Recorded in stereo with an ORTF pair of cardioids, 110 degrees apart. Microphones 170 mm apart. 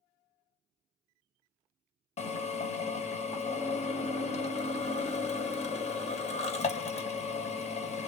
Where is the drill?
40° left, 1.1 m.